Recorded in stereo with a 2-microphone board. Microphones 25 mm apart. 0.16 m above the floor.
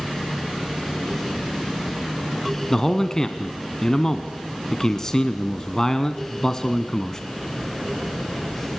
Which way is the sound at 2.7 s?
20° left (ahead or behind).